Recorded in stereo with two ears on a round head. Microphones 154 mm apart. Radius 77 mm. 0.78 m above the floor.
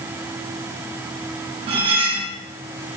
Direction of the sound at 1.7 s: 35° right (ahead or behind).